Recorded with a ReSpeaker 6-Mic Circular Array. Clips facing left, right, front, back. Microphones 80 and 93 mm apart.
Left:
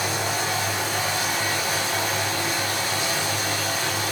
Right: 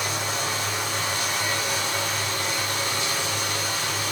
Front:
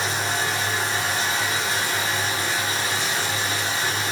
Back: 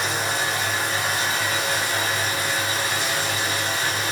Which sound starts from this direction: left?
Running water, at 0.0 s.